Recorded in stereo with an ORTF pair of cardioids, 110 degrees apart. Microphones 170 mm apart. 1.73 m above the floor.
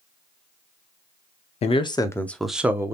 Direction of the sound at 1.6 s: 40° left.